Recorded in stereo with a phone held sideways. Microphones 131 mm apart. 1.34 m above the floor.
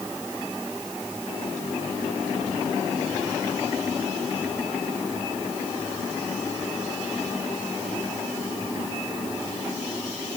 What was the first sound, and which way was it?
Only background noise.